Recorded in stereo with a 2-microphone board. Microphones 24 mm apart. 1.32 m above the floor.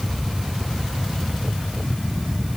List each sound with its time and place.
Only background noise.